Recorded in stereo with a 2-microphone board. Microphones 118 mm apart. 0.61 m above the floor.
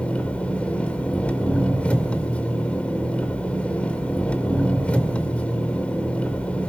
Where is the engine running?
10° left (ahead or behind), 2 m.